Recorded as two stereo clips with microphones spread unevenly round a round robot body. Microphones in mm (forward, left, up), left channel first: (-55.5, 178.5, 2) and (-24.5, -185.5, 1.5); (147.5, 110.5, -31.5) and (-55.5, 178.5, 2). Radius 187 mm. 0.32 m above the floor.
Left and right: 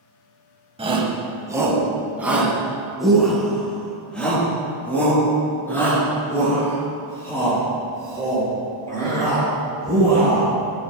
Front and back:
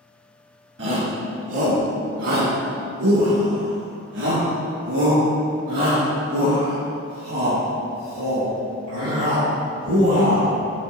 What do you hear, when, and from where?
0.8 s a shout: 155° right, 1.8 m; by 10.5 s 175° left, 8.5 m